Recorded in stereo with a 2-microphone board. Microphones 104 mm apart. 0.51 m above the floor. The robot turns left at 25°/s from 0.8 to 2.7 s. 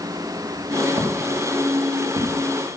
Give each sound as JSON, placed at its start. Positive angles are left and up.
{"t": 1.0, "sound": "footsteps", "side_deg": -35, "distance_m": 3.0}